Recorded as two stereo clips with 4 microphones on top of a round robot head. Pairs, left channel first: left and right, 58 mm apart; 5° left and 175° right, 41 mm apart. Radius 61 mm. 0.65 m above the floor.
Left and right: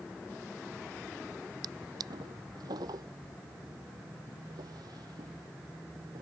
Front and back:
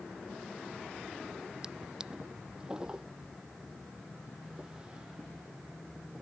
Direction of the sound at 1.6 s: 100° right.